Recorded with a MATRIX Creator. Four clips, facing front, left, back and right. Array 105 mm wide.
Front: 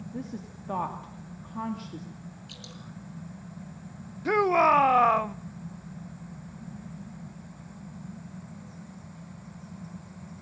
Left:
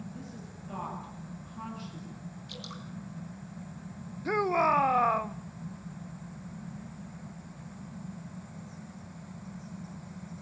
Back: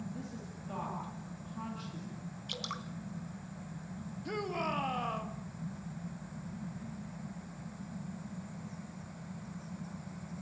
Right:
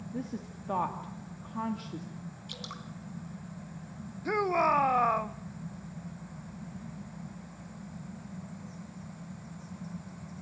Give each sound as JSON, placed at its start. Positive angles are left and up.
{"t": 0.1, "sound": "a woman speaking", "azimuth_deg": -45, "distance_m": 2.5}
{"t": 2.5, "sound": "dripping", "azimuth_deg": -170, "distance_m": 2.5}
{"t": 4.2, "sound": "a shout", "azimuth_deg": 0, "distance_m": 0.6}